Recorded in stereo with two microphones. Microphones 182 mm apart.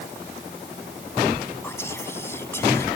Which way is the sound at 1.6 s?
15° left (ahead or behind).